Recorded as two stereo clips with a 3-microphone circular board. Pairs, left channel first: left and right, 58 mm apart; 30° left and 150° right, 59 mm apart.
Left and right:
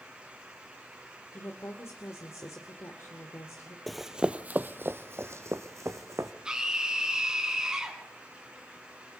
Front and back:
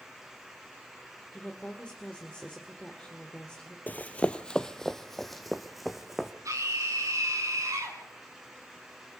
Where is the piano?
No piano in this recording.